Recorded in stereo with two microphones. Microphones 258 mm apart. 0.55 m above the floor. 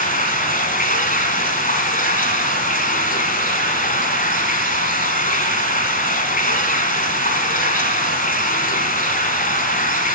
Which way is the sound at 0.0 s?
30° left (ahead or behind).